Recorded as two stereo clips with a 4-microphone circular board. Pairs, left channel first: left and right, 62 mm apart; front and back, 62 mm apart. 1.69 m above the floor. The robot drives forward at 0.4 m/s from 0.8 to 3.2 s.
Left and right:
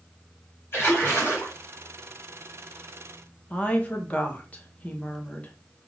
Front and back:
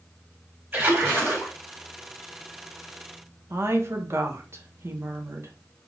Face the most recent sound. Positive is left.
turn(degrees=155)